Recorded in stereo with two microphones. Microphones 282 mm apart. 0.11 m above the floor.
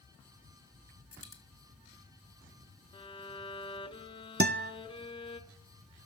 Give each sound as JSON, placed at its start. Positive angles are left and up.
{"t": 1.1, "sound": "a dropped coin", "side_deg": 55, "distance_m": 1.3}
{"t": 2.9, "sound": "a violin", "side_deg": 20, "distance_m": 0.6}
{"t": 4.4, "sound": "a guitar", "side_deg": -40, "distance_m": 0.5}